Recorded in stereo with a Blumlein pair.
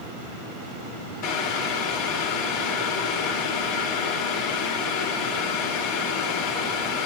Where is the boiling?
45° left, 2.5 m.